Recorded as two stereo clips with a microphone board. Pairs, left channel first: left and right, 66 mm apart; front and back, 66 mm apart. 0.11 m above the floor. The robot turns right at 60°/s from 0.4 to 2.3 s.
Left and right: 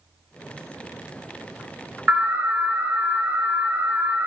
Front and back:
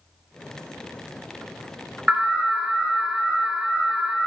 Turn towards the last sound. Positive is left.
turn(degrees=-110)